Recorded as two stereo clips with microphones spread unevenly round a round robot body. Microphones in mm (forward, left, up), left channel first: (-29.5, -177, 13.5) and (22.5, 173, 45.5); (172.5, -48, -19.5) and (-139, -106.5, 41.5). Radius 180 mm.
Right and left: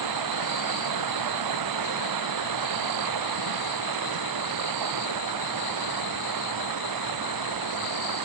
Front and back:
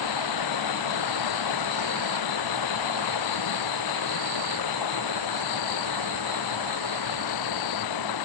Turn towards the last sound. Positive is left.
turn(degrees=45)